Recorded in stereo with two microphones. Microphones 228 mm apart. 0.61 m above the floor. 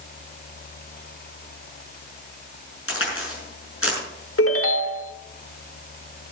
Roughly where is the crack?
Left.